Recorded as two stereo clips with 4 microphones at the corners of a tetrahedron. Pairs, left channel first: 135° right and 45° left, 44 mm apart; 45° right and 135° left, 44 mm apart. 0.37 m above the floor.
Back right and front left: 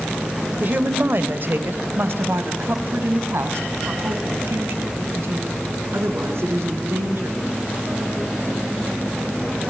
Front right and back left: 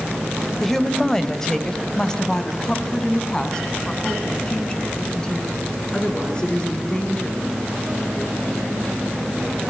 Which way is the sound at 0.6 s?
35° left.